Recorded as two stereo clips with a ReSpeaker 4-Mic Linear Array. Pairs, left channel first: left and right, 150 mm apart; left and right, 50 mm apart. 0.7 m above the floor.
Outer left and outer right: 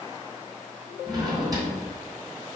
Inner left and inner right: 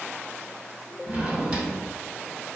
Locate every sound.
1.1 s a drawer: 25° right (ahead or behind), 2.5 m